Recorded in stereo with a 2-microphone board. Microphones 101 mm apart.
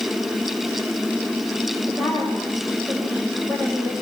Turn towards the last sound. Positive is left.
turn(degrees=10)  # may be behind; listen again after turning